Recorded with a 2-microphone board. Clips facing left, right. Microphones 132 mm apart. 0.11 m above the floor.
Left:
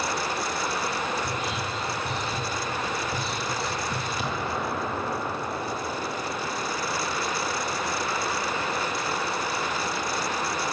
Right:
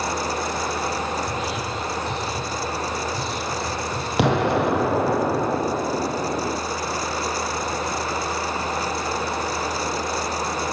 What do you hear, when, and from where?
1.2 s whispering: 50° left (ahead or behind), 4.5 m
4.2 s an explosion: 75° right (ahead or behind), 1.0 m